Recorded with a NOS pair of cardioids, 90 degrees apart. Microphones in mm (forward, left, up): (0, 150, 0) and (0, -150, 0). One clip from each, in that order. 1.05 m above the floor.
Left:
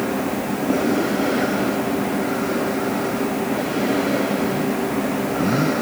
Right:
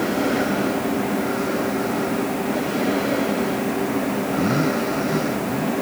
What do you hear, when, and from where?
Only background noise.